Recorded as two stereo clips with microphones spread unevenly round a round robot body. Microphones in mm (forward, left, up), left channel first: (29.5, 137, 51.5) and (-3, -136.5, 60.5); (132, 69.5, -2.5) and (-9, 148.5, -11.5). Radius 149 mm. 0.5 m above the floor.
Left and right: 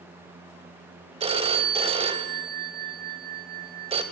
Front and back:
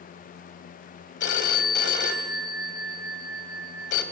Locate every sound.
1.2 s a phone ringing: 25° right, 1.9 m